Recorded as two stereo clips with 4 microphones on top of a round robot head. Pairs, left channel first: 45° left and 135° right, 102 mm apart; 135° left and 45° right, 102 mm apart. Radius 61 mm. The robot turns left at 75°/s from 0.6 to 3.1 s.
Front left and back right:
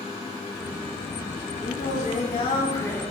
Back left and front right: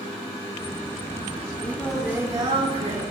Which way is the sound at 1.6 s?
70° left.